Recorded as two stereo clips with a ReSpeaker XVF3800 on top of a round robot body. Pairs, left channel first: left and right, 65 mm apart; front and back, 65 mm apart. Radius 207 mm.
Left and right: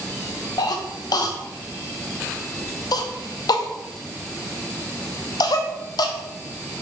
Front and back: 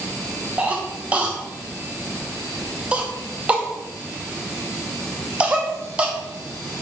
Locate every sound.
0.6 s a cough: 110° left, 0.5 m